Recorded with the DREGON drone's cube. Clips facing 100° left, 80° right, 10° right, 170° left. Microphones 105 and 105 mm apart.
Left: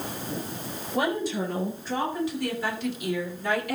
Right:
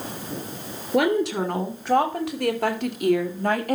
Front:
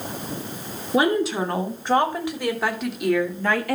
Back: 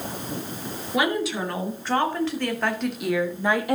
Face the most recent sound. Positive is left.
turn(degrees=-120)